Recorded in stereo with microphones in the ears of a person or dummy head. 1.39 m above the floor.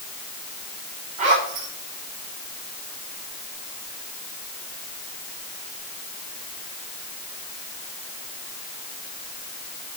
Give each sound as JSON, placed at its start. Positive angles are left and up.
{"t": 1.2, "sound": "a zipper", "side_deg": -40, "distance_m": 4.0}